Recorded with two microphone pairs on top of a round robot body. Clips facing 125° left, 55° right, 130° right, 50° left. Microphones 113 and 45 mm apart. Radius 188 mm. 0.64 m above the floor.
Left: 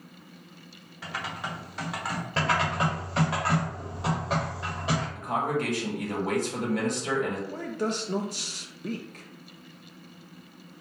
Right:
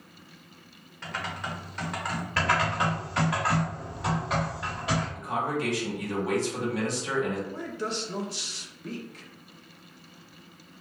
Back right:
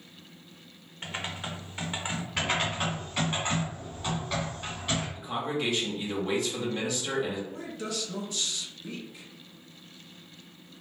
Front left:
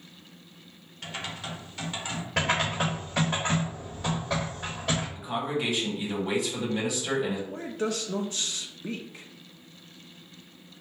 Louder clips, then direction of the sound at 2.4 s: Even, front left 3 dB; 60° left.